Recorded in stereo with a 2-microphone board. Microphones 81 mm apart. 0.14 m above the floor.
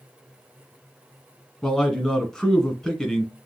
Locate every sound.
1.6 s a man speaking: 5° left (ahead or behind), 1.4 m